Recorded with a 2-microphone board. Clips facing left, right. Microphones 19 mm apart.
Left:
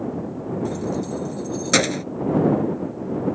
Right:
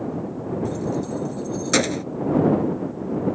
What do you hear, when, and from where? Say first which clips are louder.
0.7 s keys jangling: even; 10° left (ahead or behind)